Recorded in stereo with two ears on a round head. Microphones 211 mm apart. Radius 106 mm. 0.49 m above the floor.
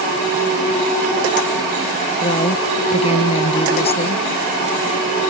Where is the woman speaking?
25° left (ahead or behind).